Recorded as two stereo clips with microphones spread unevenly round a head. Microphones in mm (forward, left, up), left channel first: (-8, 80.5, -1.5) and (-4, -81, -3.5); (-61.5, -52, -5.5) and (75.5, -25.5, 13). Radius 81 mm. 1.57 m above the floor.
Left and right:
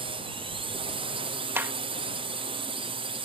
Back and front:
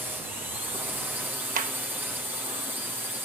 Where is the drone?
70° right.